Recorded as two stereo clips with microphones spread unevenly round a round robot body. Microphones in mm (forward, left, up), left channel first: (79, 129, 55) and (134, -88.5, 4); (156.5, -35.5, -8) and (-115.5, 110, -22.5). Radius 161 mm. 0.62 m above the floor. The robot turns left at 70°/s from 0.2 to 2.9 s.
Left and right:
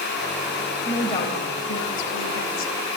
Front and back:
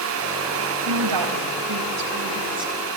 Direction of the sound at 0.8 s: 160° right.